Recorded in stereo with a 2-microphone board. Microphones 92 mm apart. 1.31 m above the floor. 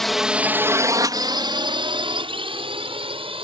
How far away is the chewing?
No chewing in this recording.